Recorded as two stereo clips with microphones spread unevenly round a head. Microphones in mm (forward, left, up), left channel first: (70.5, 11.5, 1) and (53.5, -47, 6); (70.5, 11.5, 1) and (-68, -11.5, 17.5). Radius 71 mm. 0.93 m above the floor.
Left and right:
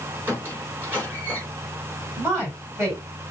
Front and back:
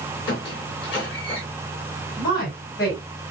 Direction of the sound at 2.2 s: 50° right.